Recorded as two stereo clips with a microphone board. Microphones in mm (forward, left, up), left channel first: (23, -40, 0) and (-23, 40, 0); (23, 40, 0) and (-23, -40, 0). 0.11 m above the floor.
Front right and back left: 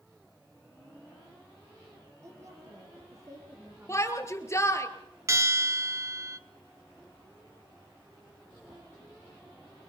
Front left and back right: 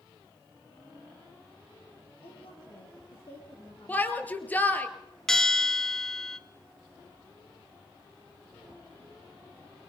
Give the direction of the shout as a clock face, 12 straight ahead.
12 o'clock.